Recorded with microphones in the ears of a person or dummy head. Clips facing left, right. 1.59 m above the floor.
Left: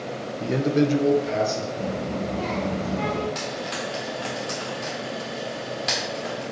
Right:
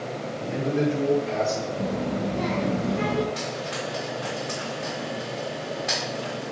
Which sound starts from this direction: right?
A child speaking, at 1.8 s.